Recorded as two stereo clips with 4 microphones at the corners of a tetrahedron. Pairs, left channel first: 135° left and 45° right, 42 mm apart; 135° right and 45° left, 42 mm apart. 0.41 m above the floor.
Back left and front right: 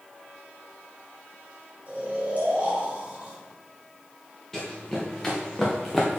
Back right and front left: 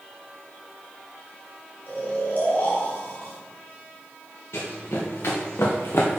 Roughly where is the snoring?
Right.